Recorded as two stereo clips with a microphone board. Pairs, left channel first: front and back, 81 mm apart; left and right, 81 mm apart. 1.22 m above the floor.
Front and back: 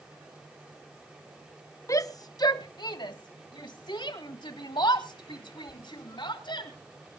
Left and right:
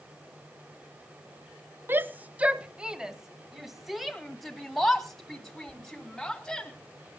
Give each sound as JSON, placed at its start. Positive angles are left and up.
{"t": 1.9, "sound": "a shout", "azimuth_deg": -30, "distance_m": 0.9}